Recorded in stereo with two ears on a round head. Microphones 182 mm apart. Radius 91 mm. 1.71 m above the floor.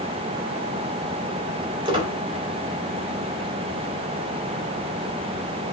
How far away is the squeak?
About 3.5 m.